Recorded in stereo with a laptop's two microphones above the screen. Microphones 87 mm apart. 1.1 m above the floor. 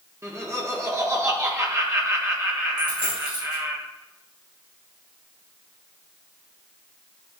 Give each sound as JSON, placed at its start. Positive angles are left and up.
{"t": 0.2, "sound": "laughter", "side_deg": -30, "distance_m": 1.4}
{"t": 2.8, "sound": "a dropped coin", "side_deg": -10, "distance_m": 3.5}